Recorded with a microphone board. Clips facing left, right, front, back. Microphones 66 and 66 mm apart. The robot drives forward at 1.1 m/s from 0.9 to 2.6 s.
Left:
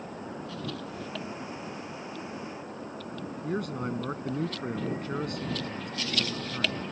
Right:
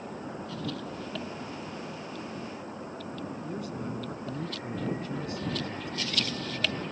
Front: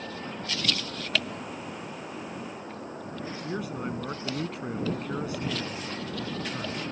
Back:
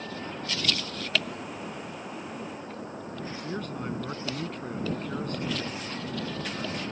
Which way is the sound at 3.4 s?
80° left.